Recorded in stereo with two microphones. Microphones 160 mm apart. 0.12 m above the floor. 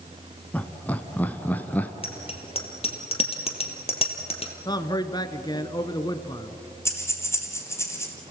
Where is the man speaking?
25° left (ahead or behind), 1.3 m.